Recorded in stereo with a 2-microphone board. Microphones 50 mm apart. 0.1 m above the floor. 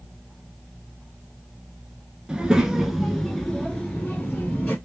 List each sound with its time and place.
2.3 s a child speaking: 15° right (ahead or behind), 0.9 m; by 4.8 s 25° left (ahead or behind), 1.5 m